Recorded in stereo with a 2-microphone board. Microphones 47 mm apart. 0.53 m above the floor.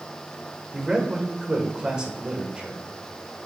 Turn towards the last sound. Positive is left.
turn(degrees=-20)  # may be behind; listen again after turning